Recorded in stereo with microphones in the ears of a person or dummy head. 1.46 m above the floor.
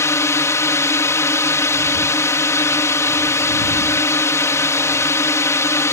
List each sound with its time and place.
0.0 s a drone: 10° left (ahead or behind)